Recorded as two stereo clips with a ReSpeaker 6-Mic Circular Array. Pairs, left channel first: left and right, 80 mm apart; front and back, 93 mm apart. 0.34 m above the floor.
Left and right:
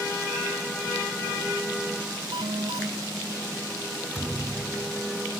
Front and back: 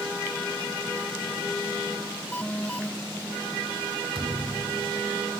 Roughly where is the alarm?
Right.